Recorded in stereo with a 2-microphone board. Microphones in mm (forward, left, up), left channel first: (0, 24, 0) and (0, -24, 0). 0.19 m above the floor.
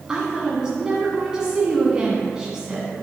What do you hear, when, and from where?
0.1 s a woman speaking: 15° right (ahead or behind), 1.6 m